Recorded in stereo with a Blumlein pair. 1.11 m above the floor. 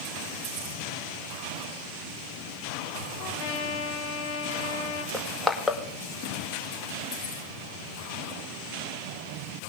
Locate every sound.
3.2 s a trumpet: 45° left, 1.9 m
5.1 s crushing: 5° left, 1.8 m